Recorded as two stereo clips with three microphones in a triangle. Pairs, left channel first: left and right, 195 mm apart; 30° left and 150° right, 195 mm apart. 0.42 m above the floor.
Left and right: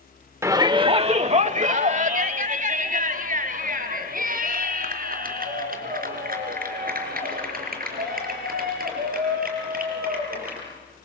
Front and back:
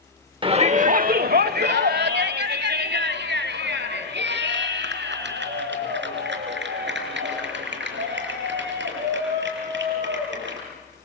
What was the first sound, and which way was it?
A shout, 145° right.